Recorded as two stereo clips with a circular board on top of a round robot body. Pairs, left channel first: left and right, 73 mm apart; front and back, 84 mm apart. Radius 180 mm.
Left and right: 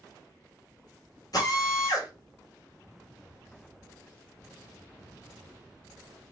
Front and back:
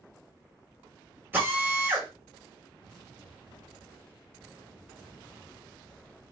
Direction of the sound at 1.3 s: 115° left.